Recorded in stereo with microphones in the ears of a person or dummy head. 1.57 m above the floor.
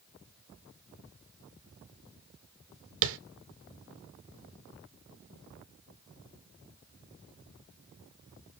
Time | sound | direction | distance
3.0 | tapping | 65° right (ahead or behind) | 0.5 m